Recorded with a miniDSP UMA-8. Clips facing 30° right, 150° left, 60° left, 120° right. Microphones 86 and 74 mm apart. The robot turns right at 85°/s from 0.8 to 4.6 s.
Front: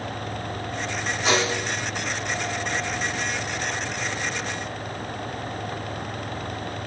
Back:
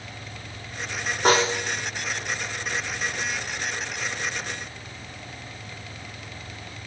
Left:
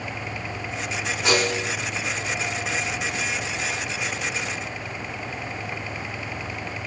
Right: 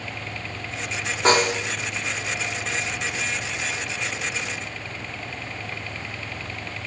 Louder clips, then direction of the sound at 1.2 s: Back 3 dB, right 4 dB; 170° right.